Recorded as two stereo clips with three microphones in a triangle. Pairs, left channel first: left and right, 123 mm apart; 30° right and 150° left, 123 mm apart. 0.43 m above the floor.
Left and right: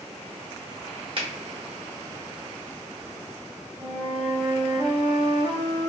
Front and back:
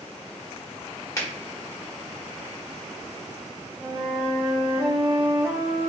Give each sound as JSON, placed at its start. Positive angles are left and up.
{"t": 1.2, "sound": "a finger snap", "azimuth_deg": -85, "distance_m": 1.0}
{"t": 3.8, "sound": "a flute", "azimuth_deg": -135, "distance_m": 1.4}